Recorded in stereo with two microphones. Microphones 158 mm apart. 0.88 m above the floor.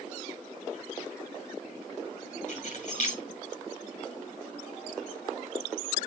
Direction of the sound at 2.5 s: 55° left (ahead or behind).